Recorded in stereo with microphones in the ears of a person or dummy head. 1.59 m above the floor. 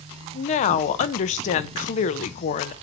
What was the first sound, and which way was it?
A woman speaking, 40° left (ahead or behind).